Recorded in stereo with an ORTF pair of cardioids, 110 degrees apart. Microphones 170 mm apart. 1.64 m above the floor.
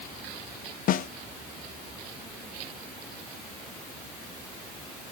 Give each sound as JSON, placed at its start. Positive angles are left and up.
{"t": 0.9, "sound": "a snare drum", "azimuth_deg": 50, "distance_m": 0.8}